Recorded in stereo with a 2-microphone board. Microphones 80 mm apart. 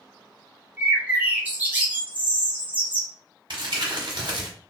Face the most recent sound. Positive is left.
turn(degrees=-70)  # may be behind; listen again after turning